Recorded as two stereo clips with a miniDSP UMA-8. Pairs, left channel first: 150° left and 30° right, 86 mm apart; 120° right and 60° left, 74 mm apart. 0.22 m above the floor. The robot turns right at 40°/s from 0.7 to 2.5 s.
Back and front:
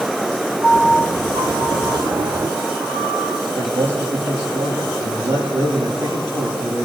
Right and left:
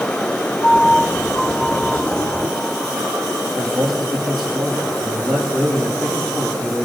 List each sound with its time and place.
0.6 s a piano: 85° right, 8.5 m; by 3.4 s 15° right, 8.5 m
3.5 s a man speaking: 35° right, 7.5 m